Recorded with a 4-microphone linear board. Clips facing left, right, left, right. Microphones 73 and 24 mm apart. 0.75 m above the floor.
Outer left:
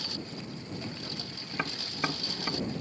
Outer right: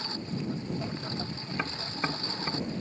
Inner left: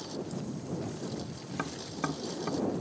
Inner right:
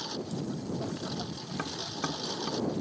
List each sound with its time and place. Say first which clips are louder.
0.0 s a lawn mower: outer right 5 dB, inner right 2 dB; 30° right (ahead or behind)
1.5 s tapping: even, inner right 1 dB; centre (ahead or behind)